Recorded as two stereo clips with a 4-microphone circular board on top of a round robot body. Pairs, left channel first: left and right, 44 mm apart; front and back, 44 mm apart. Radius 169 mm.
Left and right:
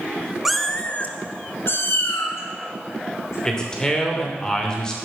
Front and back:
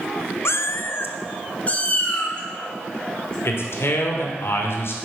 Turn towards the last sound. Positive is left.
turn(degrees=15)